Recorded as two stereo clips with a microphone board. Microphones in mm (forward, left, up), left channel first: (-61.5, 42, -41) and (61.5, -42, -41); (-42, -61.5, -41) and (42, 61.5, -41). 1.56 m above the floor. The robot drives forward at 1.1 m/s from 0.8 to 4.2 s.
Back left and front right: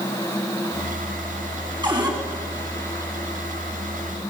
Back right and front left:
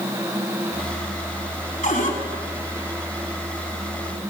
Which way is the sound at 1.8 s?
95° right.